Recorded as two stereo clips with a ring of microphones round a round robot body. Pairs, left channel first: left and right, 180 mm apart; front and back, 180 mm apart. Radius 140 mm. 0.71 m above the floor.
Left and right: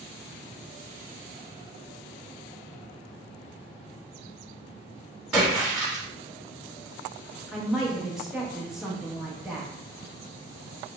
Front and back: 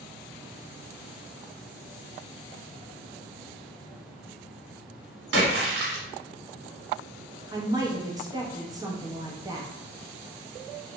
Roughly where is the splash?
Behind.